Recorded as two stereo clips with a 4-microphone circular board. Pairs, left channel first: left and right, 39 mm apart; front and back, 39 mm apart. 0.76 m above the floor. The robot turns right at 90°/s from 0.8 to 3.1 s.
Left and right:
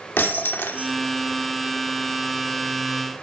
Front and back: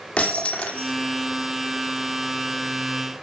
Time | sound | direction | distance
0.2 | breaking glass | 60° left | 4 m